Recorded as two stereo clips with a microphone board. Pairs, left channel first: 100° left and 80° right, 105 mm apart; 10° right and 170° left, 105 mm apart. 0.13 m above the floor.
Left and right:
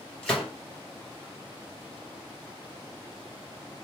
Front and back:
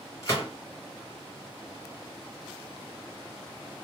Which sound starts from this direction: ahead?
A gunshot, at 0.2 s.